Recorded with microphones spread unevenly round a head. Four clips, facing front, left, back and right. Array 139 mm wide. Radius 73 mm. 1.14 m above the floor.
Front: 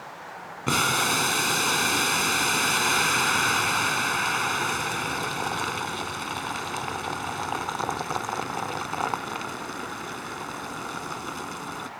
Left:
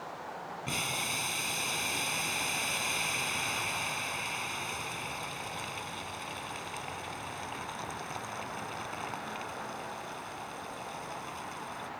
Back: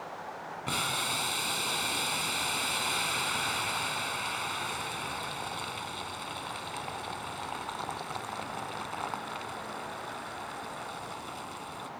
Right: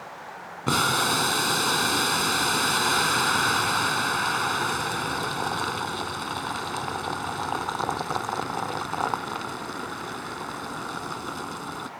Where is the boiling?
55° right.